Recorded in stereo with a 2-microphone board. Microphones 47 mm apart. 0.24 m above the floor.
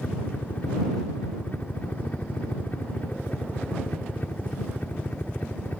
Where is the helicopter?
35° left (ahead or behind); by 5.8 s 40° left (ahead or behind).